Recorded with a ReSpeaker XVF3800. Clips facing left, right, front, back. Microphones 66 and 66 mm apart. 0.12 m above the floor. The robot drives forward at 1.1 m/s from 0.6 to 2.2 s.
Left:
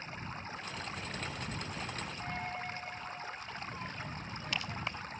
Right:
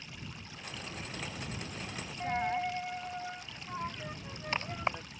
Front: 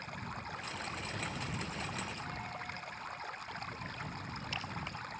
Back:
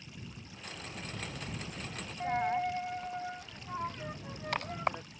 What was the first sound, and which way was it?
Running water, 35° left.